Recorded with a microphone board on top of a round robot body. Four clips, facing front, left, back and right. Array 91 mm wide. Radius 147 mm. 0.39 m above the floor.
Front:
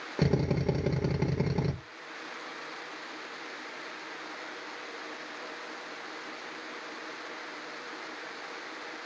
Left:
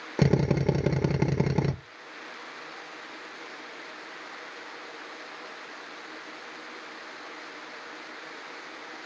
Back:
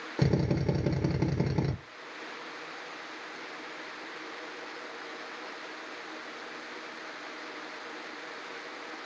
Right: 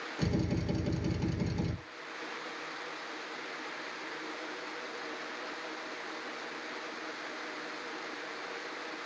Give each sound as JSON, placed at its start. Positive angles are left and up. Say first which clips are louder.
{"t": 0.2, "sound": "a drill", "louder": "left 9 dB, even", "azimuth_deg": 90, "distance_m": 1.2}